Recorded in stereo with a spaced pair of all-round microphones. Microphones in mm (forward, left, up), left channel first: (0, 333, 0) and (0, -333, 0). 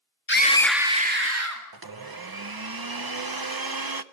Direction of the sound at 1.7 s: 35° right (ahead or behind).